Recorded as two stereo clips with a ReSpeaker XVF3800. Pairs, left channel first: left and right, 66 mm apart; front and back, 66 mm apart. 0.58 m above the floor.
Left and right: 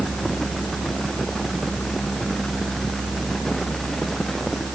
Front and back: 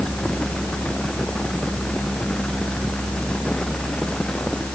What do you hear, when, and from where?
Only background noise.